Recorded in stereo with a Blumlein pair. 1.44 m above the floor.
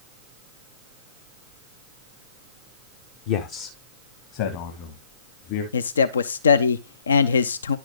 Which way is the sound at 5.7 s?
70° left.